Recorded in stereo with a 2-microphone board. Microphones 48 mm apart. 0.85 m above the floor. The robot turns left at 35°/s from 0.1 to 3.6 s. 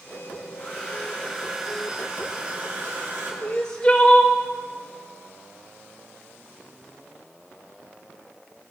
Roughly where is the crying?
Left.